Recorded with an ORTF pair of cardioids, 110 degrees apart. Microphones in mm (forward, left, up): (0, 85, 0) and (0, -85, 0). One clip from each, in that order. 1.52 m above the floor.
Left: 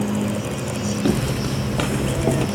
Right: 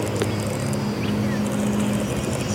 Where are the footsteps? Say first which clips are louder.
Left 4 dB; 70° left; by 2.5 s 60° left.